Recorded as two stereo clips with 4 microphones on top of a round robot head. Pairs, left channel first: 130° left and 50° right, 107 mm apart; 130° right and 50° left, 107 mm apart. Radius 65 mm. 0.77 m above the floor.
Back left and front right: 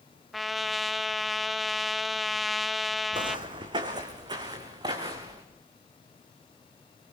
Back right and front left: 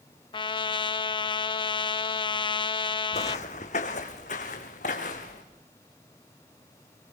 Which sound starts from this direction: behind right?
A trumpet, at 0.3 s.